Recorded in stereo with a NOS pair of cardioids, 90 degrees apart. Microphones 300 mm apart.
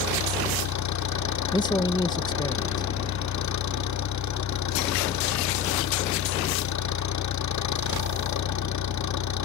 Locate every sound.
0.0 s an engine running: 70° left
1.5 s a man speaking: 15° left